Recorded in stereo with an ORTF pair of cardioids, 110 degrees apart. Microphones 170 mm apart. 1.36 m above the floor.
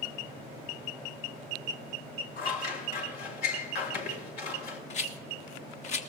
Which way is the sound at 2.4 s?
65° left.